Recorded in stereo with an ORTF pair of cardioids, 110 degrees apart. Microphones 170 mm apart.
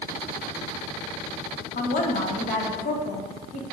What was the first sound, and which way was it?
A woman speaking, 55° left.